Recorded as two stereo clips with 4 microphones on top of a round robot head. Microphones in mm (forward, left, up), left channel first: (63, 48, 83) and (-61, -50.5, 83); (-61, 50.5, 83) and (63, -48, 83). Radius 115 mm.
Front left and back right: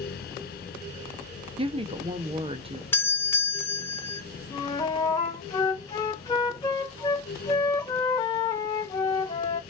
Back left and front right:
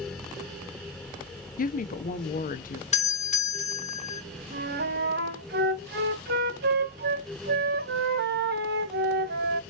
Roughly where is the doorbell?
Behind left.